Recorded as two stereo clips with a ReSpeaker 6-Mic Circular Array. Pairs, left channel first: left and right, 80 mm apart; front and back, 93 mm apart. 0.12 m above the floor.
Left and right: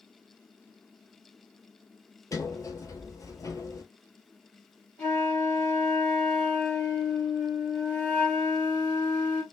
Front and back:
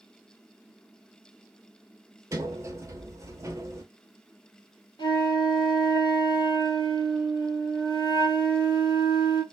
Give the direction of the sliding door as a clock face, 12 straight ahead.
8 o'clock.